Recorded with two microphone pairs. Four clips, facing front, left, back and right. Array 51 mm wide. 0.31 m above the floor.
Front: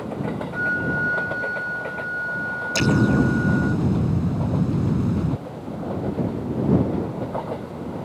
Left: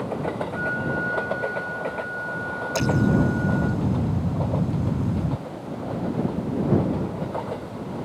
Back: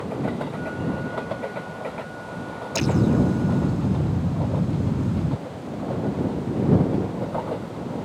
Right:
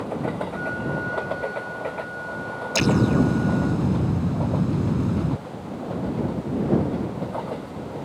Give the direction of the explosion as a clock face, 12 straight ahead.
2 o'clock.